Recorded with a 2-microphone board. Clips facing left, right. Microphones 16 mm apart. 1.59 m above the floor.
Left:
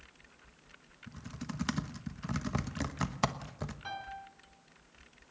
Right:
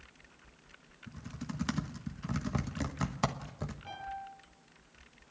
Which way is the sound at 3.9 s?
75° left (ahead or behind).